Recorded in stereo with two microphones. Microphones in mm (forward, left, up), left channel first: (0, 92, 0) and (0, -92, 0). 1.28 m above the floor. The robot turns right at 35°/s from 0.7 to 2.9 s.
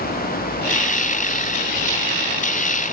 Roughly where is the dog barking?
I don't hear a dog barking.